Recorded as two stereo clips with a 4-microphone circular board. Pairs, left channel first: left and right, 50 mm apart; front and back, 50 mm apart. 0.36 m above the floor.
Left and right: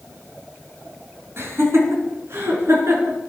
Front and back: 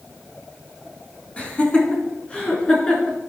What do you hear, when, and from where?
1.4 s laughter: 65° right, 3.5 m; by 3.2 s 70° right, 4.5 m